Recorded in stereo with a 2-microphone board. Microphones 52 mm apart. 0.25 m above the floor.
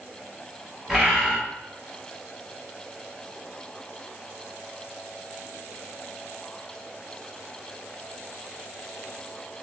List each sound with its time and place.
0.9 s a bird: centre (ahead or behind), 1.9 m